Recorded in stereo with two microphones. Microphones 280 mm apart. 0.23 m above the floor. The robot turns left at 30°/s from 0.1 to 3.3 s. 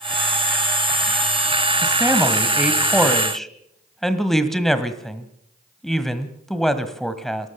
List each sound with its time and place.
1.8 s a man speaking: 10° right (ahead or behind), 1.5 m; by 7.5 s centre (ahead or behind), 1.5 m